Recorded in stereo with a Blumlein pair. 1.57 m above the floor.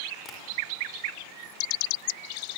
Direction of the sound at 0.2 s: 20° left.